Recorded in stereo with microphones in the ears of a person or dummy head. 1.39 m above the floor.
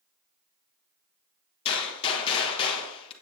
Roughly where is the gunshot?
Left.